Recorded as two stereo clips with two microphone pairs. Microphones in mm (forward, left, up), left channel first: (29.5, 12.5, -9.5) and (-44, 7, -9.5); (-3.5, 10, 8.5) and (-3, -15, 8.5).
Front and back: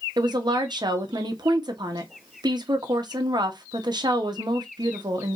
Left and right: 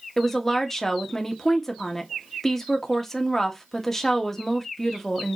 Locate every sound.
0.2 s a woman speaking: 170° left, 1.3 m